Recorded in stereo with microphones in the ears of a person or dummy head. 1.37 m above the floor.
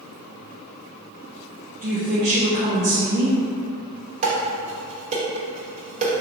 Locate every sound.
1.8 s a woman speaking: 45° right (ahead or behind), 0.5 m
4.2 s dishes clattering: 35° right (ahead or behind), 1.1 m